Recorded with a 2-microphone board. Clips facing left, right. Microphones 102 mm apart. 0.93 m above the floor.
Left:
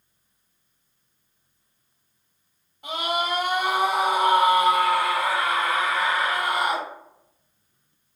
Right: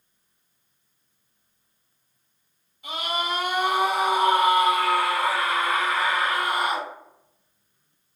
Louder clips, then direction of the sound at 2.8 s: Left 2 dB; 55° left (ahead or behind).